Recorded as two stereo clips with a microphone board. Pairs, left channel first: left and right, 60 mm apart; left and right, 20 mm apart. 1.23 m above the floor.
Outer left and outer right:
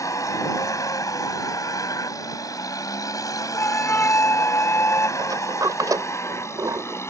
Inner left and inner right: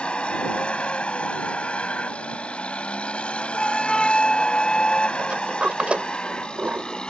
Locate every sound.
0.0 s a vehicle: 65° left (ahead or behind); by 7.1 s 50° left (ahead or behind)
3.5 s a flute: 40° left (ahead or behind)
5.2 s a sliding door: 80° right